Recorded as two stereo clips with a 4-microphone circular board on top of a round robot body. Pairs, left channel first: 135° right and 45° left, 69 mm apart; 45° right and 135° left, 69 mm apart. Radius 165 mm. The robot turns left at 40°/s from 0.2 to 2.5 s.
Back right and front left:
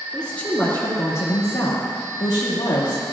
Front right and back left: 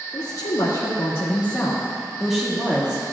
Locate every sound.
0.1 s a woman speaking: 55° right, 2 m; by 3.0 s 150° right, 2 m